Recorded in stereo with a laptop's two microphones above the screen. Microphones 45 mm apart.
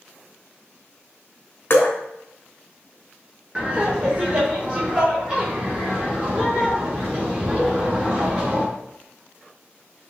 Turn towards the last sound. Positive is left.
turn(degrees=-30)  # may be behind; listen again after turning